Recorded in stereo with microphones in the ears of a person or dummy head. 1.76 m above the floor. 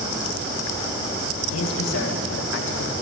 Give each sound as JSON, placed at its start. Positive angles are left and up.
{"t": 1.5, "sound": "a man speaking", "side_deg": 85, "distance_m": 2.5}